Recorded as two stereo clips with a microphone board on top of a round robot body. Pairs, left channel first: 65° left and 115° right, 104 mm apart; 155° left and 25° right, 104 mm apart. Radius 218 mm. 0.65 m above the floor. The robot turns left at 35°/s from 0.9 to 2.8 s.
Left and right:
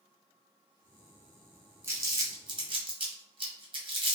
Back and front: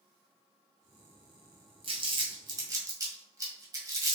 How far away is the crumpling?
About 1.8 m.